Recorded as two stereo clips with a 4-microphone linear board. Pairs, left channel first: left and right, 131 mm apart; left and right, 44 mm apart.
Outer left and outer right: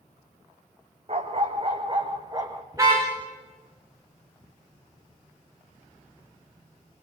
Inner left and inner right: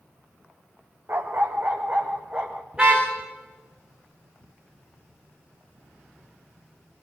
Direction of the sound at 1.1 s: 50° right (ahead or behind).